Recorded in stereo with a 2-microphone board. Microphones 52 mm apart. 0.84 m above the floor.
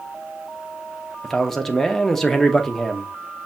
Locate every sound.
1.2 s a man speaking: 10° left (ahead or behind), 0.8 m